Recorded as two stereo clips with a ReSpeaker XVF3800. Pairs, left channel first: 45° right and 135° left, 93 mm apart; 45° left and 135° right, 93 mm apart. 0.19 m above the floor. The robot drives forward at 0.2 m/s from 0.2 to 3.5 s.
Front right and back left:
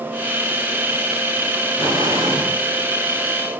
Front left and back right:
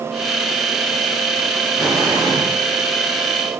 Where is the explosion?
175° right, 6 m.